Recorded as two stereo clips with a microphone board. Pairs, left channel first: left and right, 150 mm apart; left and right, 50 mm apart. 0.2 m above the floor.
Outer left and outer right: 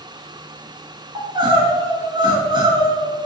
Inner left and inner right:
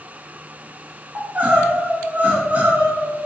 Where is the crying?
30° right (ahead or behind), 1.0 m.